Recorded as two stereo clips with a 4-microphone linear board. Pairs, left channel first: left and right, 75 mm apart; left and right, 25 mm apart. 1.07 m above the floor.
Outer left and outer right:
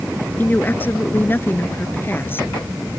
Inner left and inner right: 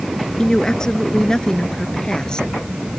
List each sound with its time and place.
0.4 s a woman speaking: 25° left (ahead or behind); by 2.5 s 30° left (ahead or behind)